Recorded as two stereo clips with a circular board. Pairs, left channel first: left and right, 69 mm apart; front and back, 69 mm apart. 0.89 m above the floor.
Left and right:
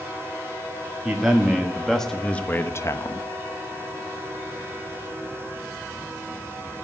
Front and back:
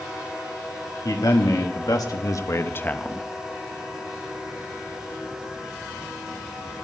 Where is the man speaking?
10° right, 1.7 m; by 3.3 s 85° left, 0.8 m.